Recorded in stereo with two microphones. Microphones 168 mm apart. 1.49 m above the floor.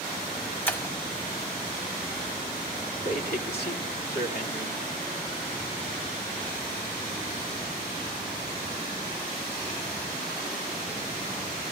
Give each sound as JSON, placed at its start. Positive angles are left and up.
{"t": 0.7, "sound": "breaking glass", "side_deg": 10, "distance_m": 3.5}
{"t": 3.0, "sound": "a man speaking", "side_deg": 75, "distance_m": 3.0}